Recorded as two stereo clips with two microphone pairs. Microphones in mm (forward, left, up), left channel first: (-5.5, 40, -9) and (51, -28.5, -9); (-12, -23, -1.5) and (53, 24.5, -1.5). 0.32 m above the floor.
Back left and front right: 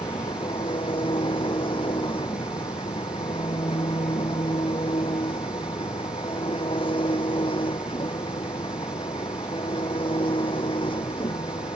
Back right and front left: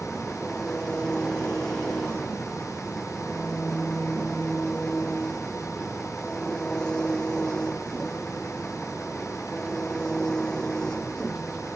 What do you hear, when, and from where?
0.0 s an engine running: 135° left